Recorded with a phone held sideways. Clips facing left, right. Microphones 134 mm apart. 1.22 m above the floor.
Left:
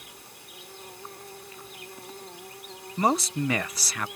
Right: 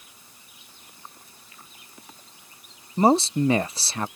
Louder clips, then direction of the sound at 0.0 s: Left 7 dB; 70° left (ahead or behind).